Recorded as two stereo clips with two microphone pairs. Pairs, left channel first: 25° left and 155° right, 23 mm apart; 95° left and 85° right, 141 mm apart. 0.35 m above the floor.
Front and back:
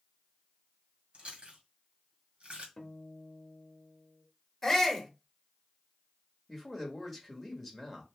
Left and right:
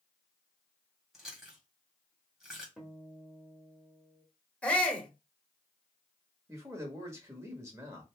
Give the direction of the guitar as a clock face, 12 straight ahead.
12 o'clock.